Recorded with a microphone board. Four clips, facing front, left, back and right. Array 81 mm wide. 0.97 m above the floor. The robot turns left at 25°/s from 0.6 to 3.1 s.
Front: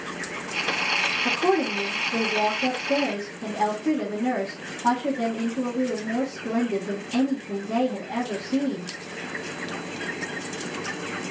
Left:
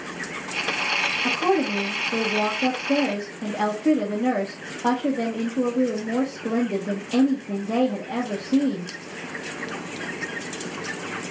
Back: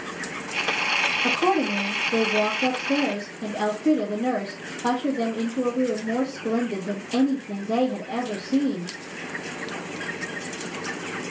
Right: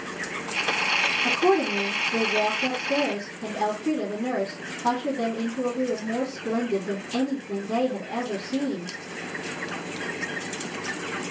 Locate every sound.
1.2 s a woman speaking: 155° left, 1.4 m; by 8.9 s 110° left, 1.4 m